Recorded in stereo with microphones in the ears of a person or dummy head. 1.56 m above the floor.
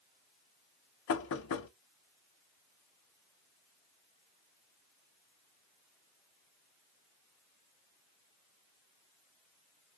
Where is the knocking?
70° left (ahead or behind), 0.6 m.